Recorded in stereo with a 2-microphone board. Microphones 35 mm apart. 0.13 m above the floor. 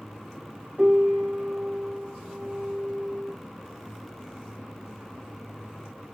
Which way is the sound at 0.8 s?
25° right (ahead or behind).